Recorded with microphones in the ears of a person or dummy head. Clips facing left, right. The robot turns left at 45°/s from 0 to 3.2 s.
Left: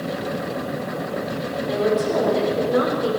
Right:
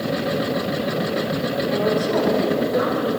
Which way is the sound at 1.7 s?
170° left.